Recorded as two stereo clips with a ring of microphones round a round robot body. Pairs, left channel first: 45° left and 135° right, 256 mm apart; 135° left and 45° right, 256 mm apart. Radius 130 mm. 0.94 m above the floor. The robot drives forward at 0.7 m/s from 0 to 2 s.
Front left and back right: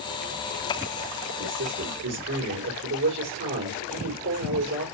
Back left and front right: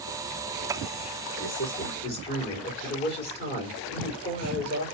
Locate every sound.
1.4 s a man speaking: straight behind, 3.5 m